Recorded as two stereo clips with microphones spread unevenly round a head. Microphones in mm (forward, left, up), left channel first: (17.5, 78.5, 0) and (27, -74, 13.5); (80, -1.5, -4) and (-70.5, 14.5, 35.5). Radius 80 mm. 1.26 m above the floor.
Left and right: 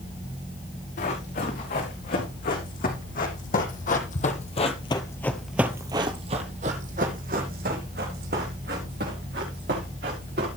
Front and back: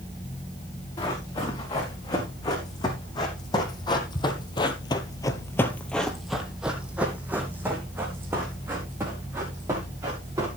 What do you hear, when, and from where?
1.0 s running footsteps: 65° left, 5.5 m; by 10.5 s 115° right, 6.5 m